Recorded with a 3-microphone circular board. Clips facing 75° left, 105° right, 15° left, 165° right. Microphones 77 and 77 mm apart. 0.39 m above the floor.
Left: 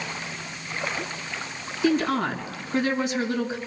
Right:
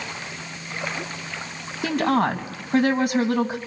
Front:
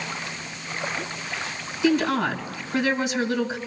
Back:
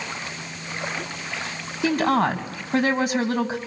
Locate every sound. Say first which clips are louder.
1.8 s a woman speaking: right 2 dB, back 1 dB; 130° right, 2.5 m